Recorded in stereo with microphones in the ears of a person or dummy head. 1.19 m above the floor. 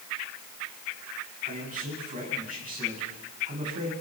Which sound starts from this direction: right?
A man speaking, at 1.4 s.